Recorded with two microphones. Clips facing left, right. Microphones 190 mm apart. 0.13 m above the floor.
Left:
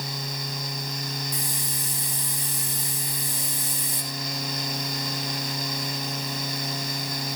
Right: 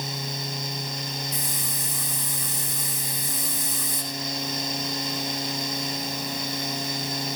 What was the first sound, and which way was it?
A hiss, 30° left (ahead or behind).